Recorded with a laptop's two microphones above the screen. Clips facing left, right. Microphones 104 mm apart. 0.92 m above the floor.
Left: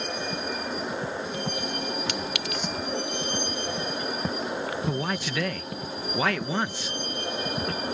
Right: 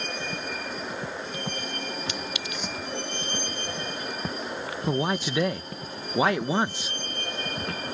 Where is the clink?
65° left (ahead or behind).